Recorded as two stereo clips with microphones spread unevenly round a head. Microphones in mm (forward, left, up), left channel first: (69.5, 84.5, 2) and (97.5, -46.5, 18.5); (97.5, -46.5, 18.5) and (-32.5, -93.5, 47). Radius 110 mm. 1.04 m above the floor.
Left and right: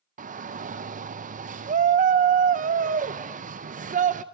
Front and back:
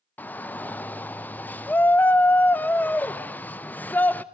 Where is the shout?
55° right, 0.7 m.